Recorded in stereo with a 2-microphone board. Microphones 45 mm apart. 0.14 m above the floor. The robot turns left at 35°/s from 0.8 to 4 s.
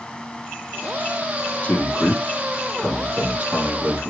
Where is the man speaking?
30° left (ahead or behind), 3 m; by 4.1 s 45° right (ahead or behind), 3 m.